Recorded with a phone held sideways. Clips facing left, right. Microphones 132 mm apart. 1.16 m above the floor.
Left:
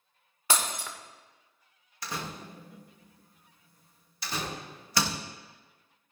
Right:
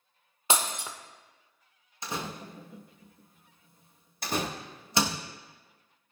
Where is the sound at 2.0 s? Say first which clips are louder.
Right 2 dB; 25° right (ahead or behind), 0.9 m.